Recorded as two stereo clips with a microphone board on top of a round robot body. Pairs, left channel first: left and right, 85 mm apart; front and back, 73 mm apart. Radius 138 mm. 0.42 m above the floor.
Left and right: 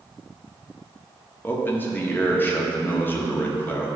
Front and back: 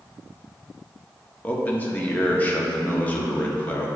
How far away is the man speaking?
About 1.3 m.